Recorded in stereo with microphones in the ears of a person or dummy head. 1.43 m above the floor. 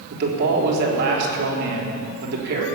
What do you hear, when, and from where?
0.1 s a man speaking: 65° right (ahead or behind), 3.5 m